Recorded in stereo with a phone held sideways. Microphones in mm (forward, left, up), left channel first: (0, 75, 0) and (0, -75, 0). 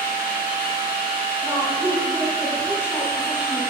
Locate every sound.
0.0 s a machine running: 80° left, 3.5 m
1.4 s a woman speaking: 15° right (ahead or behind), 4 m